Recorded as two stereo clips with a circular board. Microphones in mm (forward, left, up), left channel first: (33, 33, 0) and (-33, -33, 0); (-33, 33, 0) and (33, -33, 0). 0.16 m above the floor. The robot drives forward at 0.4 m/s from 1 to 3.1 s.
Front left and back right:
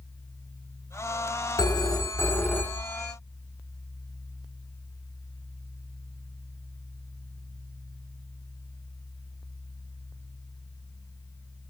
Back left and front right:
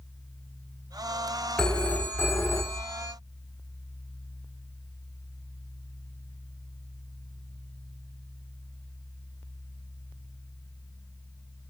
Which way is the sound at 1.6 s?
55° left.